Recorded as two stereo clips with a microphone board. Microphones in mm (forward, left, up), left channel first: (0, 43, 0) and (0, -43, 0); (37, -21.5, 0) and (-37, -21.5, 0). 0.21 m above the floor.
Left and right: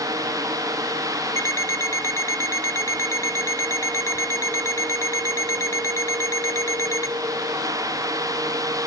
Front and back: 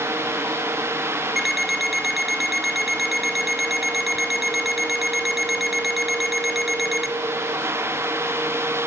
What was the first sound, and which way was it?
An alarm clock, 95° left.